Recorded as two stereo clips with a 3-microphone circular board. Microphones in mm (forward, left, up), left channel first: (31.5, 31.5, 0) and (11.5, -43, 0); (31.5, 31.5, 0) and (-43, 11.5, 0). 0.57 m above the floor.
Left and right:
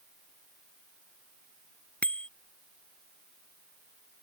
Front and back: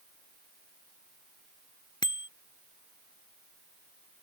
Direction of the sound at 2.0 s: 5° left.